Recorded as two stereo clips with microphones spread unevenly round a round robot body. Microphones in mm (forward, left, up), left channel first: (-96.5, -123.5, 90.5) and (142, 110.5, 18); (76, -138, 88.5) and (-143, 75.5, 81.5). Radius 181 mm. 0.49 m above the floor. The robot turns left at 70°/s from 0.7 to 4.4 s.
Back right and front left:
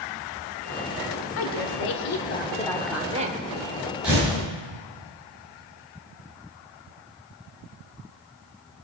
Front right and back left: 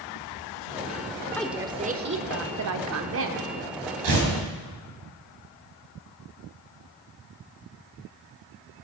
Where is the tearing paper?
130° left, 3.5 m; by 4.3 s 115° left, 3.5 m.